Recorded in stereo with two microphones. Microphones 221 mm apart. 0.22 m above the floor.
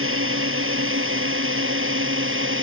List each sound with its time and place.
0.0 s a drone: 65° right (ahead or behind); by 2.6 s 60° right (ahead or behind)